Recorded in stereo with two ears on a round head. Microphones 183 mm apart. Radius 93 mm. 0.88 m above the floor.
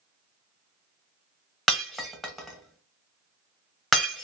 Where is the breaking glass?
Centre (ahead or behind), 0.8 m.